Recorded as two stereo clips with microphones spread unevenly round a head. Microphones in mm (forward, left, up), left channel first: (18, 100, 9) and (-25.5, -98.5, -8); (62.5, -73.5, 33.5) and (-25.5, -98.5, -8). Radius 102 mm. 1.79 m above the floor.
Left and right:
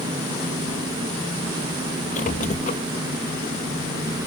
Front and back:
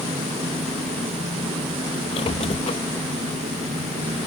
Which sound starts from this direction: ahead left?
A squeak, at 2.1 s.